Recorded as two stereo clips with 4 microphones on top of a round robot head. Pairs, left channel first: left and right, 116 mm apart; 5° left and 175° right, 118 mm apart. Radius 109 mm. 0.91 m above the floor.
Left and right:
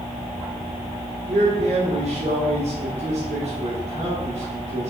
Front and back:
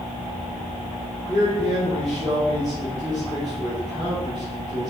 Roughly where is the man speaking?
Right.